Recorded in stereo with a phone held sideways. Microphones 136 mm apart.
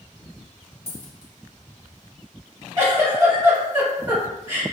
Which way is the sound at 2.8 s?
25° right (ahead or behind).